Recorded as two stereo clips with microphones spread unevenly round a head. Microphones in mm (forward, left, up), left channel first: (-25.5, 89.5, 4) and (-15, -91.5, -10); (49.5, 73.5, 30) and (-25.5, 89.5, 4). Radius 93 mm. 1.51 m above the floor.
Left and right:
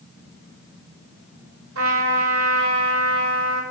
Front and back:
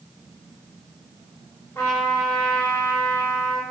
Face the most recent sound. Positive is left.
turn(degrees=-90)